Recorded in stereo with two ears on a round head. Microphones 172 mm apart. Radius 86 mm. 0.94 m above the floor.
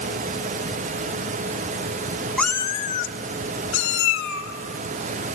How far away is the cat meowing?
About 0.6 m.